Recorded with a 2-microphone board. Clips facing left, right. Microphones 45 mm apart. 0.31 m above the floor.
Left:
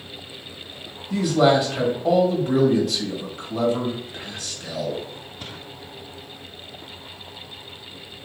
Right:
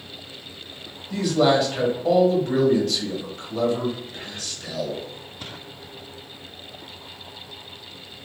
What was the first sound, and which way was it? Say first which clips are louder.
A man speaking: left 1 dB; 10° left (ahead or behind).